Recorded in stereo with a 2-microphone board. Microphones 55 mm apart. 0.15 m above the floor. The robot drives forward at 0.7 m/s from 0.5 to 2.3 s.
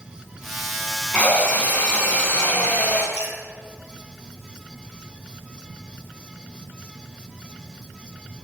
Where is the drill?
25° left (ahead or behind), 1.3 m; by 3.0 s 20° left (ahead or behind), 1.6 m.